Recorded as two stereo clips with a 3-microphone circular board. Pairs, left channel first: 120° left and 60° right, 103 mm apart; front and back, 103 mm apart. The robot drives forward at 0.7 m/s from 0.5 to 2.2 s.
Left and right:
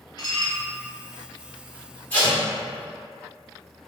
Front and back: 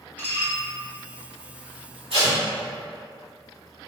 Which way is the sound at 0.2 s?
70° left.